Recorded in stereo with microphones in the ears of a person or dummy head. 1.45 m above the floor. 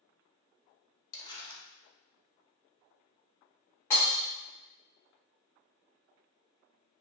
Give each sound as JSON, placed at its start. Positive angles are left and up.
{"t": 1.1, "sound": "crumpling", "side_deg": 25, "distance_m": 0.6}
{"t": 3.9, "sound": "breaking glass", "side_deg": 10, "distance_m": 1.3}